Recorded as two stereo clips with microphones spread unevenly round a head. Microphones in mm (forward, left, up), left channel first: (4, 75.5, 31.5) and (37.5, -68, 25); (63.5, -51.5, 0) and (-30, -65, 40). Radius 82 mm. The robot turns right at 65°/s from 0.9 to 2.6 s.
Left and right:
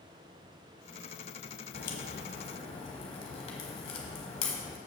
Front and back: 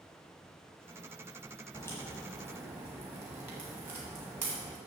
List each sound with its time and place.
1.7 s a crack: 90° left, 1.2 m; by 4.8 s 150° left, 1.2 m